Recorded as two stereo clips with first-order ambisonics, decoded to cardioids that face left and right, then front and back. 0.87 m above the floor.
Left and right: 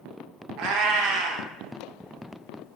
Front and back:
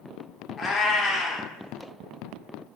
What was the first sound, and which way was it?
A cat meowing, 70° right.